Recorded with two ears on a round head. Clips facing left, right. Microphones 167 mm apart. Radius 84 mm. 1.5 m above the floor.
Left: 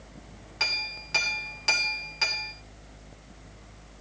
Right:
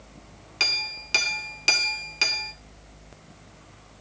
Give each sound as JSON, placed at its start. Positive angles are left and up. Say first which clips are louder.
{"t": 0.6, "sound": "a clink", "louder": "right 2 dB", "side_deg": -40, "distance_m": 2.5}